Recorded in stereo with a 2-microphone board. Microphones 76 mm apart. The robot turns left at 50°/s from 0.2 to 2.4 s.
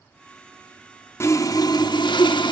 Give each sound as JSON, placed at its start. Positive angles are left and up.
{"t": 1.2, "sound": "sawing", "azimuth_deg": 145, "distance_m": 0.8}